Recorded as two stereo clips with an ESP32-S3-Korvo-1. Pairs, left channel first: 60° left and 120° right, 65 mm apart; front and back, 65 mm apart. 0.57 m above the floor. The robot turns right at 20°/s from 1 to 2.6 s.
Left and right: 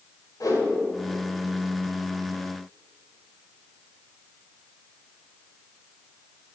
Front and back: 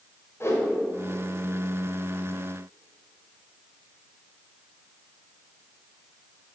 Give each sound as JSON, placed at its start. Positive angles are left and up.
{"t": 0.4, "sound": "a whoosh", "azimuth_deg": 45, "distance_m": 2.5}